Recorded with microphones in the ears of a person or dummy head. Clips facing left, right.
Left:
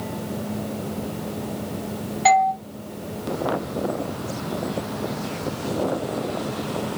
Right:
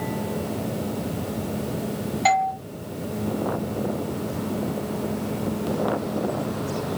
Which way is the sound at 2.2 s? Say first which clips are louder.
Left 4 dB; centre (ahead or behind).